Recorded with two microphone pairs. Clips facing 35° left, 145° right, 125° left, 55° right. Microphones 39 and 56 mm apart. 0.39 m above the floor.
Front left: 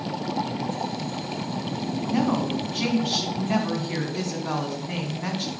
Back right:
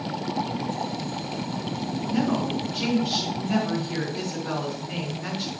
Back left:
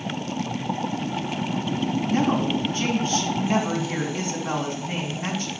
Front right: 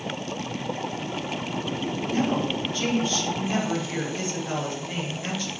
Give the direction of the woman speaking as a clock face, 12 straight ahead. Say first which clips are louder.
Front left 1 dB, back left 2 dB; 10 o'clock.